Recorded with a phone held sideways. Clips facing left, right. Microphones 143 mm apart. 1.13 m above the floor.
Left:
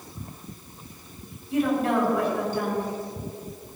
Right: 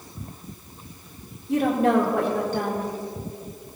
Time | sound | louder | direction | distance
1.5 | a woman speaking | right 3 dB | 85° right | 3.5 m